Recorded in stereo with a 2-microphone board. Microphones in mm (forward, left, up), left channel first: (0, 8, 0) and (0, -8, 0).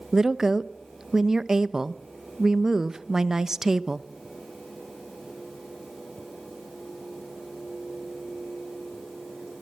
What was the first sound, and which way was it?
A woman speaking, 25° right (ahead or behind).